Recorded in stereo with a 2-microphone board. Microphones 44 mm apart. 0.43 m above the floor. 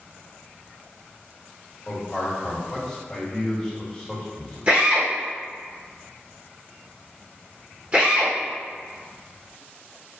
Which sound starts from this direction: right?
A drill, at 4.7 s.